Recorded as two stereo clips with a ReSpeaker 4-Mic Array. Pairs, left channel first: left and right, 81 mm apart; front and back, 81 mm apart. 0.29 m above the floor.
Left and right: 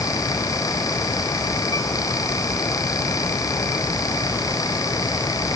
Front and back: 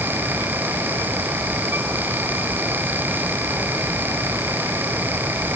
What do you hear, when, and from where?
Only background noise.